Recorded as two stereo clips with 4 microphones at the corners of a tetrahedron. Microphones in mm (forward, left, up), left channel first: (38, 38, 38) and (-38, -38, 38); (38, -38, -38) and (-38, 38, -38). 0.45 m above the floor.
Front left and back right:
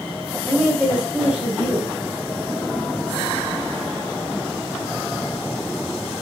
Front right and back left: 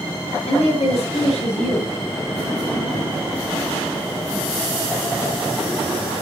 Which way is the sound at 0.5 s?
35° right.